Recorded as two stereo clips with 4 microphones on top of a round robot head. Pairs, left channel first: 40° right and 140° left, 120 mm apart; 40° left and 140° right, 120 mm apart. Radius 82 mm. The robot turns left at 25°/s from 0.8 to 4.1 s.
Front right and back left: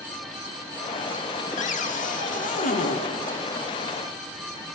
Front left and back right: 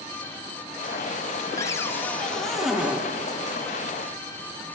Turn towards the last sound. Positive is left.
turn(degrees=-85)